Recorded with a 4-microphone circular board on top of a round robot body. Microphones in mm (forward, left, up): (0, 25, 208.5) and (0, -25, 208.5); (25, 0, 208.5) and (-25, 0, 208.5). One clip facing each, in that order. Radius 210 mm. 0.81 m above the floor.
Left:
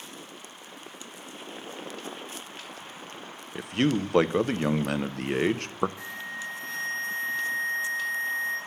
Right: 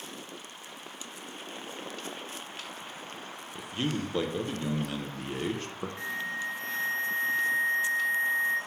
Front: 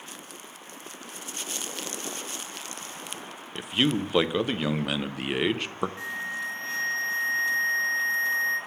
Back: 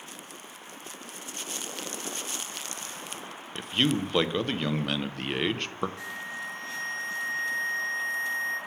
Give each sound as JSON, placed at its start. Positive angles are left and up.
{"t": 3.5, "sound": "a man speaking", "azimuth_deg": 85, "distance_m": 0.8}
{"t": 6.0, "sound": "an alarm", "azimuth_deg": -55, "distance_m": 3.0}